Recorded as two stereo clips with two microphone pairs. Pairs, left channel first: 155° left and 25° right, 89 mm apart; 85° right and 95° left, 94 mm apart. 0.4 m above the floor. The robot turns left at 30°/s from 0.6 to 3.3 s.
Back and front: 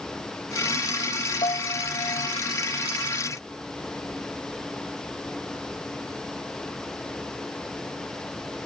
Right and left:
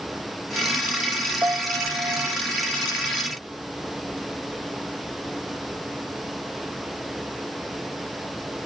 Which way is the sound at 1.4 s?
160° left.